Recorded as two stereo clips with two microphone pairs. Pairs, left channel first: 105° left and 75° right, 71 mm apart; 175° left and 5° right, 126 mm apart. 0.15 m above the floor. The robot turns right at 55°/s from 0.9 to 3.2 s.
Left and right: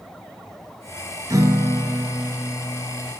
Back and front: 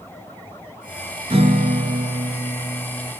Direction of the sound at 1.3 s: 45° right.